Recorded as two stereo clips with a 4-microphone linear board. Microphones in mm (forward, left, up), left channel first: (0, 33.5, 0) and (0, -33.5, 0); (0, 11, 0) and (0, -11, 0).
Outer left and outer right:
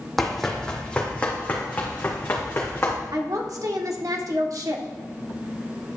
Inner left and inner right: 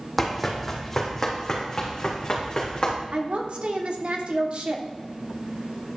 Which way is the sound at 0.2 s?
Centre (ahead or behind).